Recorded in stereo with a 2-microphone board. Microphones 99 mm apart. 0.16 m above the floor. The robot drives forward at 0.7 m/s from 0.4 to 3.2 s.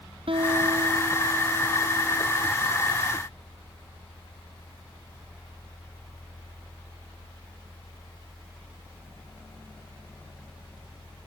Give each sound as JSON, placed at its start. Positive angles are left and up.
{"t": 0.3, "sound": "a guitar", "side_deg": -65}